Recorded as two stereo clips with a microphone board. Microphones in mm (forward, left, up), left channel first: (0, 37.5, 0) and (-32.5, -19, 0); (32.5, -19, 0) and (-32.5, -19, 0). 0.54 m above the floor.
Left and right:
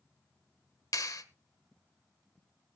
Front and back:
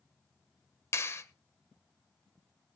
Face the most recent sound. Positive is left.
turn(degrees=40)